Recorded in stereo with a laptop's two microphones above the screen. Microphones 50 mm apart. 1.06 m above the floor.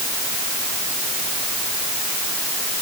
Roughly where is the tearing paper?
I don't hear tearing paper.